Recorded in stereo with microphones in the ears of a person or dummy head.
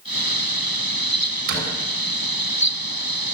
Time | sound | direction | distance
1.5 | a door slam | 65° right (ahead or behind) | 7.5 m